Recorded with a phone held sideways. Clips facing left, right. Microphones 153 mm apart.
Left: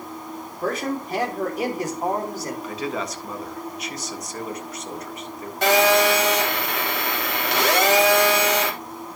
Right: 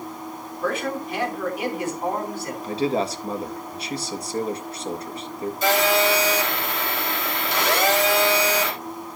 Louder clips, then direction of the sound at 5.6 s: Left 3 dB; 70° left (ahead or behind).